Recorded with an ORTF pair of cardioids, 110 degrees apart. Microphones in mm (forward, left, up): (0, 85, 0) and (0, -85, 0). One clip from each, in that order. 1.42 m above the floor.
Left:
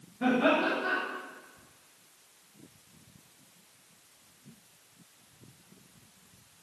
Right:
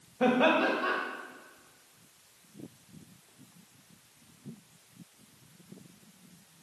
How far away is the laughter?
About 2.0 m.